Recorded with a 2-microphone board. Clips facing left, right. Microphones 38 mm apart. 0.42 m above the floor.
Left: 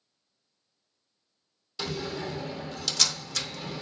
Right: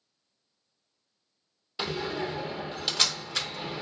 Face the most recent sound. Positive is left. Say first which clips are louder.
# right 2 dB
turn(degrees=-25)  # may be behind; listen again after turning